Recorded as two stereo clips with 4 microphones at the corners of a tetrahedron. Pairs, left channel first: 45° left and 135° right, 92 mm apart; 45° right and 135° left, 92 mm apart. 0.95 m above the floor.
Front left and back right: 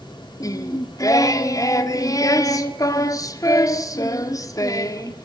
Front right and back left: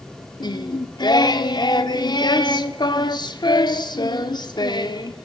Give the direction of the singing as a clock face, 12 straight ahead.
12 o'clock.